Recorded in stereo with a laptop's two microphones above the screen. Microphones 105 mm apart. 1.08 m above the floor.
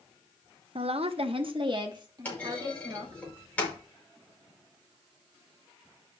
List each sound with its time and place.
0.8 s a woman speaking: 60° right (ahead or behind), 0.9 m; by 3.2 s 35° right (ahead or behind), 3.5 m
2.2 s a clunk: 15° left (ahead or behind), 5.5 m